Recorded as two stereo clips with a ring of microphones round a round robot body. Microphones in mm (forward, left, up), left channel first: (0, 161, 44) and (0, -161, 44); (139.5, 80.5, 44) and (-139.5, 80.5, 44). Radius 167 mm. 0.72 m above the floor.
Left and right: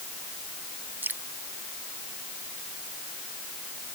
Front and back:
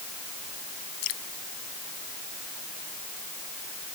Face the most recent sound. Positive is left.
turn(degrees=-5)